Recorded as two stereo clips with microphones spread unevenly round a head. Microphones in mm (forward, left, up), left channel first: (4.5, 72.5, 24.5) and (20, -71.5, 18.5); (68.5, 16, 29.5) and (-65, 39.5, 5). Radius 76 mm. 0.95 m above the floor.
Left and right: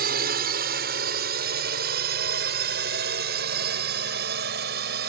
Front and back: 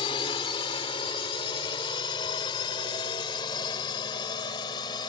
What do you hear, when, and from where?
0.0 s a drone: 70° right; by 5.1 s 75° right